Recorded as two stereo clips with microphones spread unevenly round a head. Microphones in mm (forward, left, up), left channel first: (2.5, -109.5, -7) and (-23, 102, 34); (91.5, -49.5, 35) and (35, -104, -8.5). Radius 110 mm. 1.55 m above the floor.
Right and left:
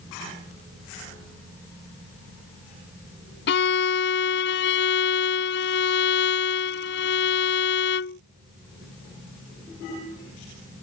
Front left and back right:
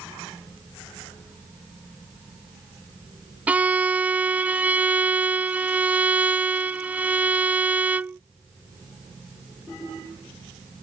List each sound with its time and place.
3.5 s a violin: 40° right